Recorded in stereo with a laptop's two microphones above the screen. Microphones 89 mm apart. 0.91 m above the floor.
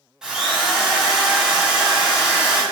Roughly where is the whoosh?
I don't hear a whoosh.